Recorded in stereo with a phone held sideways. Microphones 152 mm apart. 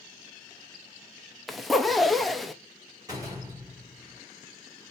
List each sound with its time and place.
1.5 s a zipper: centre (ahead or behind), 0.6 m
3.1 s a door slam: 25° right (ahead or behind), 3 m